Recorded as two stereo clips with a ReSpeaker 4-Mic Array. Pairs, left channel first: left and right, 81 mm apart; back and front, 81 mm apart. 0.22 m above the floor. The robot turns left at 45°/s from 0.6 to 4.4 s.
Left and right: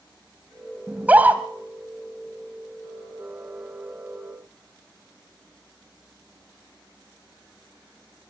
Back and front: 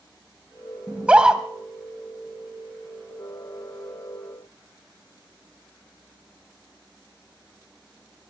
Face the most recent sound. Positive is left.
turn(degrees=155)